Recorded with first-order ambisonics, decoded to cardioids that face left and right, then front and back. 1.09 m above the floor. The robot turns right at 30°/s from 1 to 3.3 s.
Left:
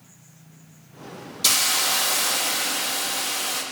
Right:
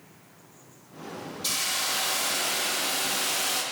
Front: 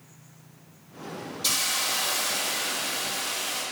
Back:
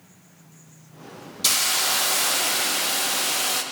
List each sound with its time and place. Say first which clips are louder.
1.4 s a hiss: left 7 dB, back 4 dB; 125° left, 0.6 m; by 3.6 s straight behind, 0.6 m